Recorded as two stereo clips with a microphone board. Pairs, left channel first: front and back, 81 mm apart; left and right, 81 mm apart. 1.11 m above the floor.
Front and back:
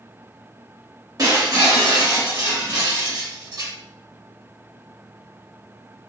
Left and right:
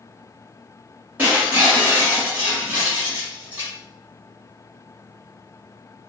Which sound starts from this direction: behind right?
Breaking glass, at 1.2 s.